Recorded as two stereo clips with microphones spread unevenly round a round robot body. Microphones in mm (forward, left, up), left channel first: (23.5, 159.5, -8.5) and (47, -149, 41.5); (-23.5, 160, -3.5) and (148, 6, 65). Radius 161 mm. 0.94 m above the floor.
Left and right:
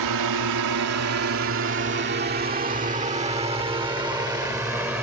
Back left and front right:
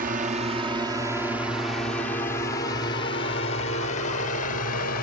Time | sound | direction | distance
0.0 | a drone | 110° right | ?